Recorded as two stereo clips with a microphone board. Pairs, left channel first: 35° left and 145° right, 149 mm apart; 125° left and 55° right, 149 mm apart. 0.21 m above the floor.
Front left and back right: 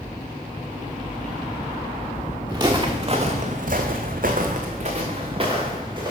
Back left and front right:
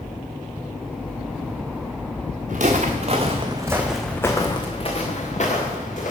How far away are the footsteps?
About 1.6 m.